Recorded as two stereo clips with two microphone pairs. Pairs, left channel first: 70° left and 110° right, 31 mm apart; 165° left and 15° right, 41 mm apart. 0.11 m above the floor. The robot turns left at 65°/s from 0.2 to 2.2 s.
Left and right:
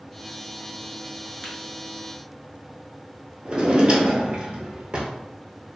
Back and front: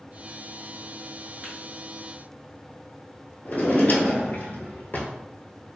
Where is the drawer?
160° right, 0.6 m.